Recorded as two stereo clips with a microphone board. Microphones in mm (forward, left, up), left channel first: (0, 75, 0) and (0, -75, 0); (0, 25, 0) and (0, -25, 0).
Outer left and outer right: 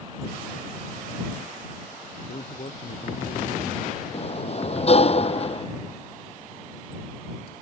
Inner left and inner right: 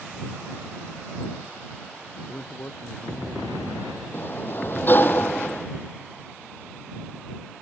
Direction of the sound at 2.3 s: 50° left (ahead or behind).